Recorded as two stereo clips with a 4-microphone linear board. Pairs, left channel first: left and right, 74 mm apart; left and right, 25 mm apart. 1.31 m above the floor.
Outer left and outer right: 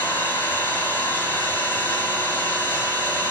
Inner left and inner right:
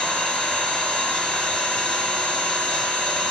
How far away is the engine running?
About 2 m.